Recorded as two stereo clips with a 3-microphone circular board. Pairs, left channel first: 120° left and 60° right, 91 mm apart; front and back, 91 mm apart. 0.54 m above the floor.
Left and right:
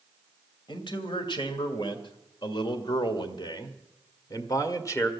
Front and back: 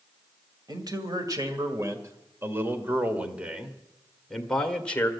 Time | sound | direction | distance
0.7 | a man speaking | 140° left | 2.5 m